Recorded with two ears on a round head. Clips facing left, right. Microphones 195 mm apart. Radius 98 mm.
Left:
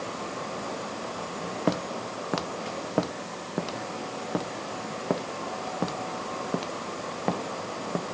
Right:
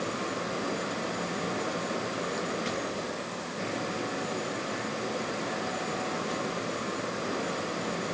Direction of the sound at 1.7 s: 85° left.